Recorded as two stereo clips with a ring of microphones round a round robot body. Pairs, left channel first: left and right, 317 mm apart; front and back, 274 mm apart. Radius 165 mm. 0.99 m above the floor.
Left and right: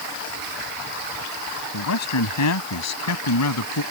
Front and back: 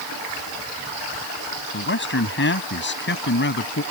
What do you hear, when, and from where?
1.7 s a man speaking: 50° left